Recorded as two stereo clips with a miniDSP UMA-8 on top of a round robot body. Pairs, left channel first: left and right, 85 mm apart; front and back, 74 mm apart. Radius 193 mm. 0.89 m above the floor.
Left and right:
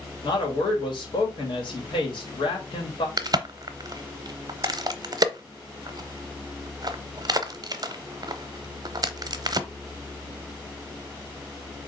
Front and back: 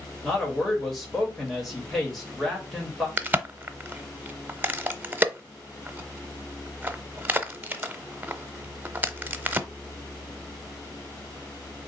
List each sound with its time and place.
0.2 s a man speaking: 85° left, 2 m
3.2 s a crack: 120° right, 0.8 m